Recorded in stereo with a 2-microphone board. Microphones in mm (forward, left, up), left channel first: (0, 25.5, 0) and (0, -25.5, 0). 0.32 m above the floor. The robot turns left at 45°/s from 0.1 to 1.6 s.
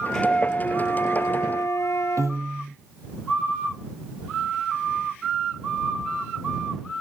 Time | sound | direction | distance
0.1 | a flute | 170° left | ?
2.2 | a piano | 80° right | ?